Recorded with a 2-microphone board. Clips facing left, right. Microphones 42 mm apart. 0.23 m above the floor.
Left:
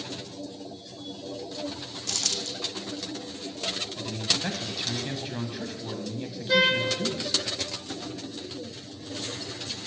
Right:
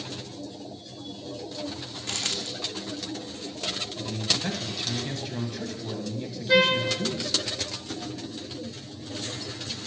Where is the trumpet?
10° right (ahead or behind), 2 m.